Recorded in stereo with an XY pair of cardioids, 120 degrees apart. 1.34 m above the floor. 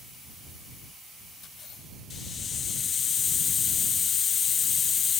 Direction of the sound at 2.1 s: 40° left.